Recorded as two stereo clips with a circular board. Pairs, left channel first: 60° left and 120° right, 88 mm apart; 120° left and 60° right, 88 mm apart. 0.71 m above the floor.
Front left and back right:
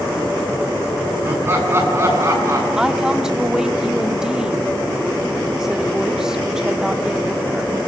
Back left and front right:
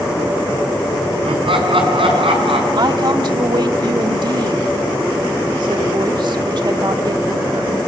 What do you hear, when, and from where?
1.2 s laughter: 55° right, 7 m; by 2.7 s 60° right, 7.5 m
2.8 s a woman speaking: 35° right, 1.4 m